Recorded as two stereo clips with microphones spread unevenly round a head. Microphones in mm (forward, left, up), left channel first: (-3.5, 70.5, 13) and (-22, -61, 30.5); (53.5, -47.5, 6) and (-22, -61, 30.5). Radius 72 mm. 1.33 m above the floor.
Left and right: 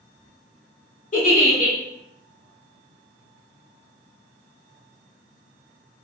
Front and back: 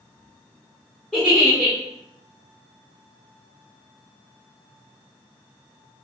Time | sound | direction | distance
1.1 | a giggle | 110° left | 1.3 m